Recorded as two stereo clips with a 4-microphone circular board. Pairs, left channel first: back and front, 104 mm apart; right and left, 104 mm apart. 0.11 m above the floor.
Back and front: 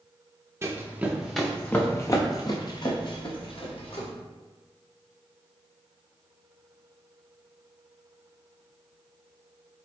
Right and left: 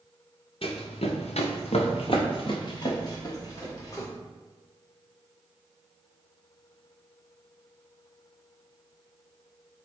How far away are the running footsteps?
About 1.1 m.